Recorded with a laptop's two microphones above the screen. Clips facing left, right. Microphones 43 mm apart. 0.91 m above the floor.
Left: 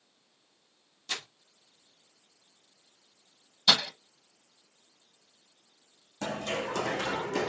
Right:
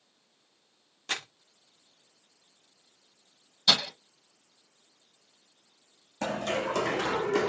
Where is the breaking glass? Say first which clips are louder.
Left 1 dB; 10° left (ahead or behind), 1.3 m.